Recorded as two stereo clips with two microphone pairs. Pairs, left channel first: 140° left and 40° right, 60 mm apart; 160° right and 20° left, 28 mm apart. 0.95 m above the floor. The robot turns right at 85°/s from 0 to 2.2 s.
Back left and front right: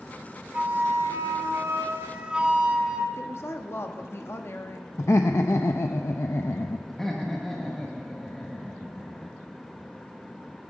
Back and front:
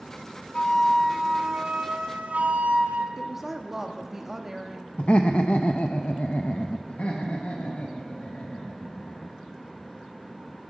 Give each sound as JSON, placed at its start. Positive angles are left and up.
{"t": 0.5, "sound": "a flute", "azimuth_deg": -110, "distance_m": 1.6}
{"t": 3.2, "sound": "a woman speaking", "azimuth_deg": 95, "distance_m": 1.4}
{"t": 5.0, "sound": "laughter", "azimuth_deg": 175, "distance_m": 0.6}
{"t": 6.9, "sound": "laughter", "azimuth_deg": -140, "distance_m": 1.4}